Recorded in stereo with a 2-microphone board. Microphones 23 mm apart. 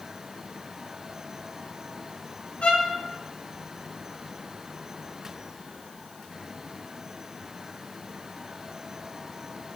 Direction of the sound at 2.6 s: 65° left (ahead or behind).